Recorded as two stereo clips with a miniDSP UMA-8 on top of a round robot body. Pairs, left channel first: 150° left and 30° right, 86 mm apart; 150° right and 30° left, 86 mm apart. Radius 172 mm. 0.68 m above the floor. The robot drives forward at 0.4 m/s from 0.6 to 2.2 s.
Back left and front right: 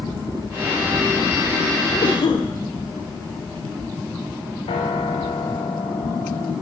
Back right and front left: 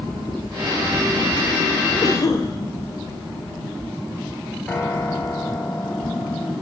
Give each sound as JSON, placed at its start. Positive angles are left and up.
{"t": 2.0, "sound": "a cough", "azimuth_deg": 165, "distance_m": 1.0}
{"t": 4.7, "sound": "a piano", "azimuth_deg": 135, "distance_m": 0.8}